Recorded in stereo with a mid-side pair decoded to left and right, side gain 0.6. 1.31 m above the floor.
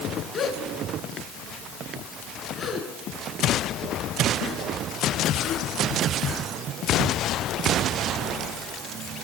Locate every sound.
0.3 s a gasp: 30° left, 7 m